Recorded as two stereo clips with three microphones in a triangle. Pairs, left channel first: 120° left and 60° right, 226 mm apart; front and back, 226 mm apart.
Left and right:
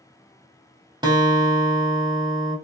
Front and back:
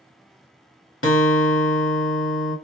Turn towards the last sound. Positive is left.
turn(degrees=10)